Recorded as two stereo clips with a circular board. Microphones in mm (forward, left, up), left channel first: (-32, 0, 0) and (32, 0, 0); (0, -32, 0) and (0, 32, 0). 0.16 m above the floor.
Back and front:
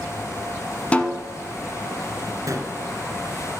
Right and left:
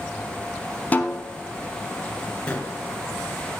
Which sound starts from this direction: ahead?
A gunshot, at 2.5 s.